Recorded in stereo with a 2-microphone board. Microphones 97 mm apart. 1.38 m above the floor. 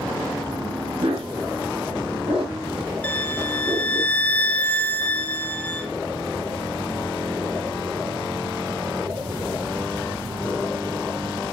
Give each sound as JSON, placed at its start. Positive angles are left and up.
{"t": 1.0, "sound": "a dog barking", "side_deg": -75, "distance_m": 5.5}
{"t": 3.0, "sound": "a violin", "side_deg": 15, "distance_m": 1.2}